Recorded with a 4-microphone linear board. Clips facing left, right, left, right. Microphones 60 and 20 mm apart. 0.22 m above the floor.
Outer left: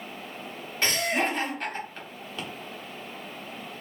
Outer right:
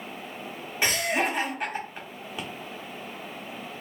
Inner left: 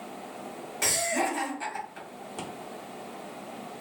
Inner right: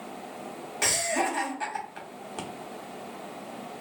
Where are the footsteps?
I don't hear footsteps.